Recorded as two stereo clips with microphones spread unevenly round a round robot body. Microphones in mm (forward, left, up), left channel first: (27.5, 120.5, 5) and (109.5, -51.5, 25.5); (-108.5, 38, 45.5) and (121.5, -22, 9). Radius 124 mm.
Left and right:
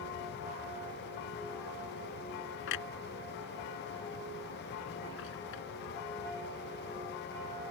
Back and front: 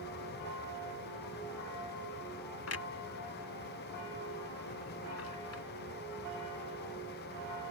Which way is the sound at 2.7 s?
135° left.